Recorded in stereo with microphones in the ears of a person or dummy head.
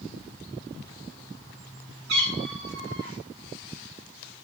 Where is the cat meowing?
65° right (ahead or behind), 4.5 m.